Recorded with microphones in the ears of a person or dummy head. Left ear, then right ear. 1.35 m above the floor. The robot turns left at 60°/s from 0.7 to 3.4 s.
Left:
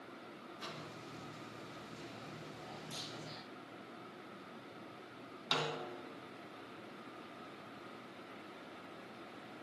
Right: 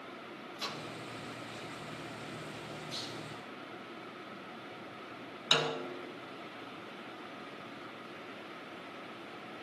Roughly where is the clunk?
Left.